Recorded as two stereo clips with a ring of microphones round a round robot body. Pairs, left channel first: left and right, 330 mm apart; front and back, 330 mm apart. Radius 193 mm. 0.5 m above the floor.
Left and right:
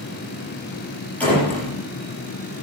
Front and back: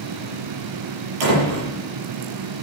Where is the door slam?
175° left, 8.5 m.